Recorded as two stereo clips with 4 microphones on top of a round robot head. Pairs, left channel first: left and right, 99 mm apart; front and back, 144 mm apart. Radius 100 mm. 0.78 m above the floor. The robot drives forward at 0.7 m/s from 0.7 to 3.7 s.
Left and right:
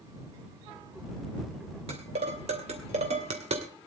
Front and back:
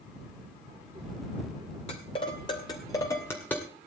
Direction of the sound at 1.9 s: 55° right.